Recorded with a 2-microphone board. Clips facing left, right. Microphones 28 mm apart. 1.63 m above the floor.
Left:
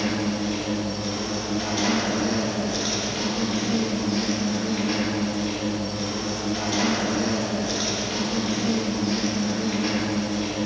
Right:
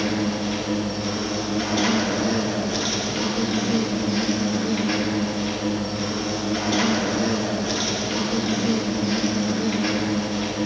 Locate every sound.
0.0 s an insect: 15° right (ahead or behind), 1.0 m